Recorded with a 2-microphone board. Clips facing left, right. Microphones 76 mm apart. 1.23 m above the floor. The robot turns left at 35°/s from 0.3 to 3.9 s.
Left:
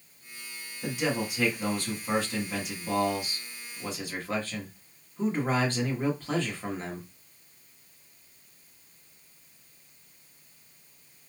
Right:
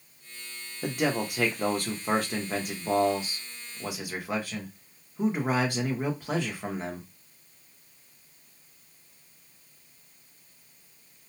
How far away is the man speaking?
About 1.1 m.